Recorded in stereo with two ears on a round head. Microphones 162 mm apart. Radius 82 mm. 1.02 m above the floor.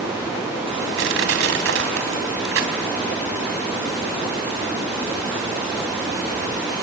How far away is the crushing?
About 3.5 m.